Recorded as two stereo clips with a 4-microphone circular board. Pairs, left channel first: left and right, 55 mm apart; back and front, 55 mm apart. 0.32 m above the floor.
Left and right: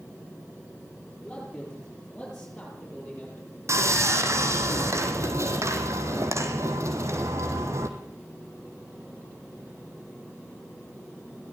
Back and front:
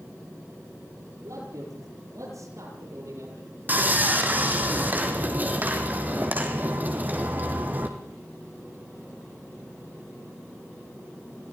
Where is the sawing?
55° right, 2.5 m.